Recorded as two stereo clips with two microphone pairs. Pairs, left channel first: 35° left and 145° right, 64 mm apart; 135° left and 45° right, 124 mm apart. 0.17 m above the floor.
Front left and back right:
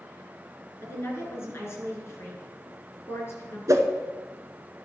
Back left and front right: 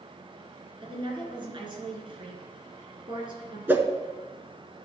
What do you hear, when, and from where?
0.8 s a woman speaking: 5° right, 2.5 m
3.7 s a whoosh: 120° right, 0.9 m